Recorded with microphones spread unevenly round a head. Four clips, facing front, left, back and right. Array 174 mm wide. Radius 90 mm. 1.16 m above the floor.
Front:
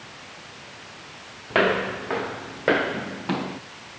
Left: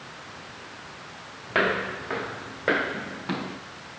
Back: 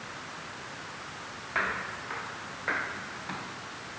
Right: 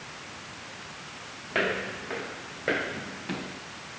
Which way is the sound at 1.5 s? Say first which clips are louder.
Left 4 dB, front 12 dB; 15° left.